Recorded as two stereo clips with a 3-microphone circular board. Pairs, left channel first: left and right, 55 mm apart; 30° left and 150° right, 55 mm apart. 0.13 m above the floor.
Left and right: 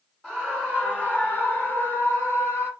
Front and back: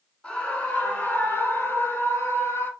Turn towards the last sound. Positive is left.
turn(degrees=55)